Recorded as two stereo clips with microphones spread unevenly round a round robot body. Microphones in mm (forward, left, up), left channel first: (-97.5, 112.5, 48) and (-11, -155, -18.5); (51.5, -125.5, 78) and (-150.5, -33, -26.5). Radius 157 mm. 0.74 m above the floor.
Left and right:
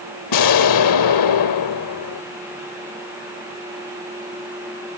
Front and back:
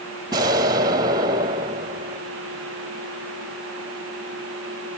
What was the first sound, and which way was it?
An explosion, 75° left.